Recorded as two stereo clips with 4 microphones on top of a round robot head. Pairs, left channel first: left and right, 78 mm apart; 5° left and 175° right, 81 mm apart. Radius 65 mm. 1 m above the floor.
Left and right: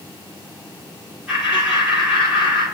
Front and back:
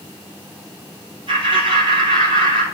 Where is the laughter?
170° right, 3.5 m.